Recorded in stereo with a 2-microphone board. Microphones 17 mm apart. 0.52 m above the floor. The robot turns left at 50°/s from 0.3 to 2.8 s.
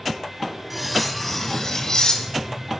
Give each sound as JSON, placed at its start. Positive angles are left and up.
{"t": 0.7, "sound": "cutlery clinking", "azimuth_deg": -165, "distance_m": 2.0}